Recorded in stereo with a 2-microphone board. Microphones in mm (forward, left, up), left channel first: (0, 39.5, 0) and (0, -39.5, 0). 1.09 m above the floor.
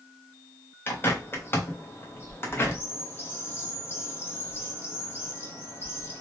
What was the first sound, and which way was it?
A bird, 30° left (ahead or behind).